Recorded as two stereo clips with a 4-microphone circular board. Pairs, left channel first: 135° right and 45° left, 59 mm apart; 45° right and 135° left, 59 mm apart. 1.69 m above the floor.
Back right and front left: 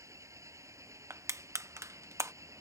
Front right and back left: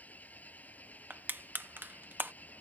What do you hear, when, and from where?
0.0 s an engine running: 15° left
1.1 s crushing: 80° left